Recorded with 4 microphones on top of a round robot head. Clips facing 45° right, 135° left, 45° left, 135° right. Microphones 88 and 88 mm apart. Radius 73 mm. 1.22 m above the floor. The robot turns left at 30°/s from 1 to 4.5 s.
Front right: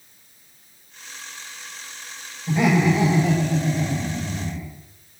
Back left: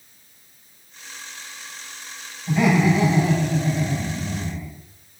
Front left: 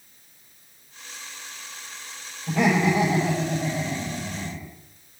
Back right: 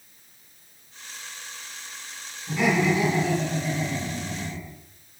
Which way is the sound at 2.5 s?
20° left.